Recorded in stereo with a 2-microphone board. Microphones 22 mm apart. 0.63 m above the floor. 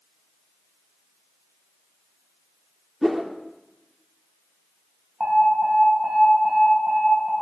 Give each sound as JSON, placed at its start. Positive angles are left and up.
{"t": 3.0, "sound": "a whoosh", "side_deg": -15, "distance_m": 0.9}
{"t": 5.2, "sound": "an alarm", "side_deg": -20, "distance_m": 5.5}